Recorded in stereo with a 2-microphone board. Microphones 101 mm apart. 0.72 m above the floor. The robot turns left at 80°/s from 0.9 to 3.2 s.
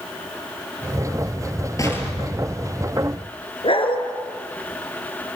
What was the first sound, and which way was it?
An explosion, 35° left.